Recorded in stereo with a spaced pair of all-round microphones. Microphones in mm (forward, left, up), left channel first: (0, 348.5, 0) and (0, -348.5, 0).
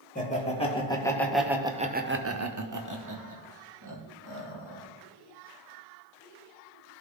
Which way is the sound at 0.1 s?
10° left (ahead or behind).